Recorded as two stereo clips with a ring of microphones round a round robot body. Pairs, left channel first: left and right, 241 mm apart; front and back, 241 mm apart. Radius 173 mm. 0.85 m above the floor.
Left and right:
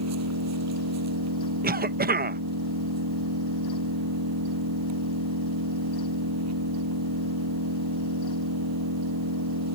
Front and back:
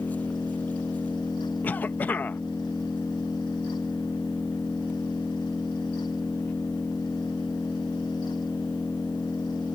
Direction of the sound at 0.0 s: 85° right.